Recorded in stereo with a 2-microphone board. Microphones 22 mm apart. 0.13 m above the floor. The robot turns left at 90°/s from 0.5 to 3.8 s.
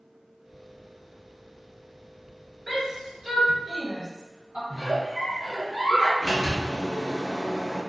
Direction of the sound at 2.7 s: 5° left (ahead or behind).